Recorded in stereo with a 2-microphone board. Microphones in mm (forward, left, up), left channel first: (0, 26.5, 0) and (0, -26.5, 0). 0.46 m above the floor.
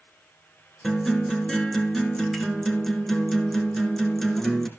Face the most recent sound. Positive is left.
turn(degrees=5)  # may be behind; listen again after turning